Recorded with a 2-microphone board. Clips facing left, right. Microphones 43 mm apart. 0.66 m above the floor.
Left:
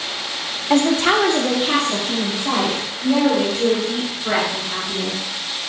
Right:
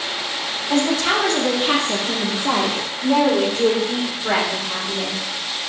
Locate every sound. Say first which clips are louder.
0.7 s a woman speaking: left 3 dB; 45° left (ahead or behind), 0.8 m; by 5.2 s 65° right (ahead or behind), 3 m